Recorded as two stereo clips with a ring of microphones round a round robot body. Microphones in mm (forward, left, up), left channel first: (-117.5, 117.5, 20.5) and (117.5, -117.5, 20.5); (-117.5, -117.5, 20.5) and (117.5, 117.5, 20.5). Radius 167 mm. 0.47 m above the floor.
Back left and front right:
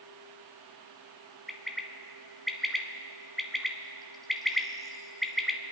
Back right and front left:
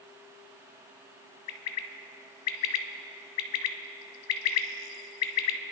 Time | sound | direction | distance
1.5 | a bird | 135° right | 0.9 m